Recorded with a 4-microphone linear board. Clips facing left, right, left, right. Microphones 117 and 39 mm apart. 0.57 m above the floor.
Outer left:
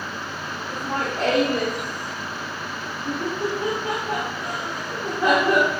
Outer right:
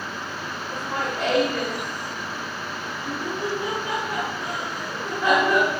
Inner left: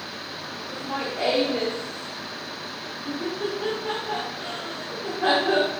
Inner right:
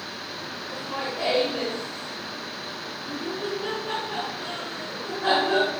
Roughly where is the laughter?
Left.